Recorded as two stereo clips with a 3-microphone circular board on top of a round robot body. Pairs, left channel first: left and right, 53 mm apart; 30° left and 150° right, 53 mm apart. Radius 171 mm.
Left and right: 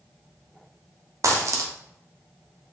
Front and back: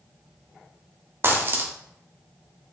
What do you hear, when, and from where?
1.2 s a dropped coin: 110° right, 0.7 m